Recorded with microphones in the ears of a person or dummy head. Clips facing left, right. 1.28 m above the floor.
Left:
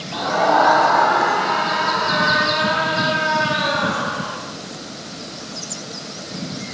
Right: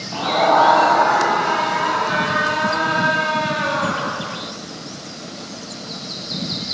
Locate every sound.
0.1 s a scream: 5° left (ahead or behind), 3 m; by 4.4 s centre (ahead or behind), 5 m